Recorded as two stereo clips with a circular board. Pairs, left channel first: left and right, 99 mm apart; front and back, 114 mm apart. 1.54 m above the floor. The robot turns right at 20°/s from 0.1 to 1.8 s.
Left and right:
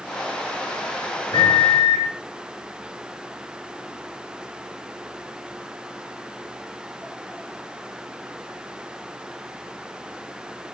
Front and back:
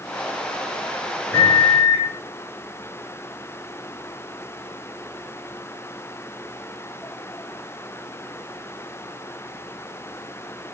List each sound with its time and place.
1.3 s a microwave: 75° left, 1.5 m; by 2.1 s 85° left, 1.5 m